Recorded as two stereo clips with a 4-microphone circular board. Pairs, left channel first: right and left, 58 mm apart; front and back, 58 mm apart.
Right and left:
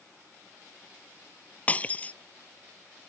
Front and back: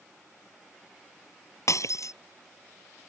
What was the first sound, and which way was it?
Breaking glass, 25° right.